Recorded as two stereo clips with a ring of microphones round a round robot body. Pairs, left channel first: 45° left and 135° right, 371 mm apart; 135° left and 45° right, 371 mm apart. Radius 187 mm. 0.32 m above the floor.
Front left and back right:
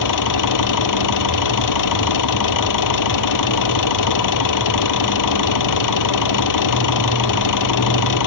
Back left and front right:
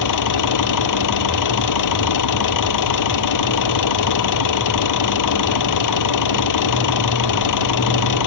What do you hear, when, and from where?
0.0 s an engine running: 90° left